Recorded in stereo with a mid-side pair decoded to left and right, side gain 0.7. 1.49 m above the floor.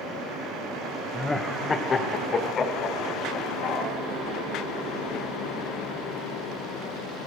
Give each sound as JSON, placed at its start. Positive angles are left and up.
{"t": 1.1, "sound": "laughter", "azimuth_deg": 5, "distance_m": 1.5}